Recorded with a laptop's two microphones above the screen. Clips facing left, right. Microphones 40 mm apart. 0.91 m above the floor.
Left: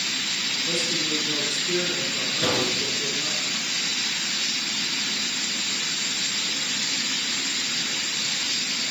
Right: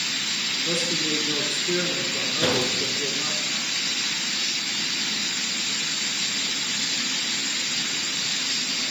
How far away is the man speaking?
About 2 m.